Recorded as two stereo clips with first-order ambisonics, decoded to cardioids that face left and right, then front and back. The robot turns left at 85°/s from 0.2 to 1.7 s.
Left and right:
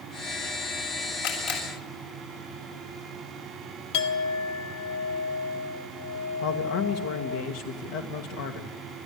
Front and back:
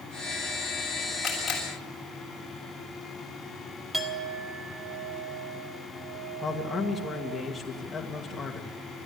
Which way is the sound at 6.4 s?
80° left.